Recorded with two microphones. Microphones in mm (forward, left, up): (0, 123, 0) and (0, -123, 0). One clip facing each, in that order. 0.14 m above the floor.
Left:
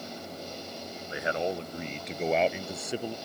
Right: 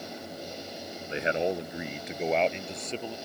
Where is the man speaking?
25° right (ahead or behind); by 3.1 s 15° left (ahead or behind).